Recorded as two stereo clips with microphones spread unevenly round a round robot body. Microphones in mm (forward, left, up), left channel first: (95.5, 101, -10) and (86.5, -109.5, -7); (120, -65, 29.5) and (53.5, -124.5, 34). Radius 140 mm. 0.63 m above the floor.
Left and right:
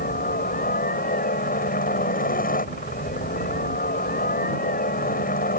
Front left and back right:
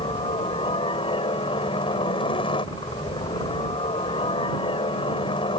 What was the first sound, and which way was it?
A helicopter, 45° left.